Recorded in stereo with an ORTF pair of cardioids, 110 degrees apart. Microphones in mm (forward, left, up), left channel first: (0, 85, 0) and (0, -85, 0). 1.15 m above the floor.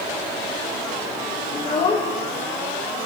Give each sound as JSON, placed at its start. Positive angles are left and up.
{"t": 1.5, "sound": "a child speaking", "azimuth_deg": 30, "distance_m": 1.7}